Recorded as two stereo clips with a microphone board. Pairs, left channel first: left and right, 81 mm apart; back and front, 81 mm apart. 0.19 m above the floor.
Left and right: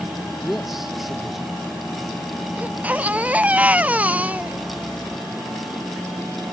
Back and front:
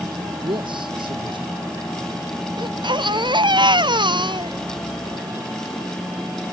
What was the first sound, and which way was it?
A man speaking, straight ahead.